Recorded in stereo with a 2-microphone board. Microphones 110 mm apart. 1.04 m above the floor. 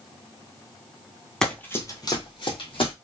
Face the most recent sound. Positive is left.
turn(degrees=55)  # may be behind; listen again after turning